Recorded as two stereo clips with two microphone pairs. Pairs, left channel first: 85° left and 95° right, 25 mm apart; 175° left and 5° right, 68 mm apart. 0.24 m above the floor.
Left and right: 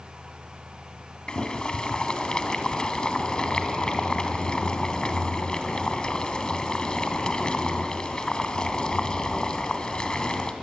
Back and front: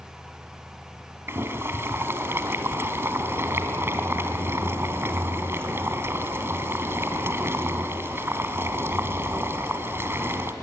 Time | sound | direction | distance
1.3 | boiling | 40° left | 1.8 m